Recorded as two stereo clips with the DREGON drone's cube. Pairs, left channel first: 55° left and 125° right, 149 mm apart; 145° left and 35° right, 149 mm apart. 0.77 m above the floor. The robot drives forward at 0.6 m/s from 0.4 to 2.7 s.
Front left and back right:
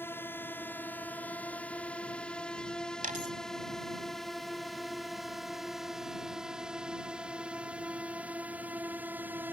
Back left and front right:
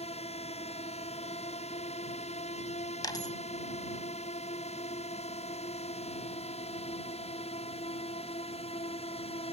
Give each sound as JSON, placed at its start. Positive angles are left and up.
{"t": 0.0, "sound": "a drone", "azimuth_deg": 125}
{"t": 3.0, "sound": "a dropped coin", "azimuth_deg": -150}